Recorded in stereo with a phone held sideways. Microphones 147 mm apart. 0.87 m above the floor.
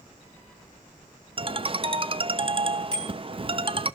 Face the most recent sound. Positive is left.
turn(degrees=-40)  # may be behind; listen again after turning